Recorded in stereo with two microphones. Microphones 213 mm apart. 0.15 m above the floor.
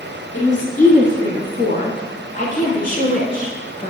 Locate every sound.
0.3 s a woman speaking: 40° left (ahead or behind), 2.5 m; by 3.9 s 35° left (ahead or behind), 1.9 m